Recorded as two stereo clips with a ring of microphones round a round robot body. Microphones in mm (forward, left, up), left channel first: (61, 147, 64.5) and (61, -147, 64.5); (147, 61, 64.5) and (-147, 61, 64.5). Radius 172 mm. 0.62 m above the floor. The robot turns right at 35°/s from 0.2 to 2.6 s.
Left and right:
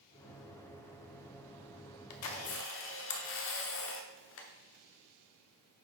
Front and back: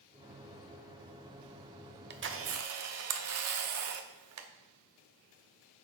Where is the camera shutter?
125° left, 1.0 m; by 4.5 s 140° left, 1.0 m.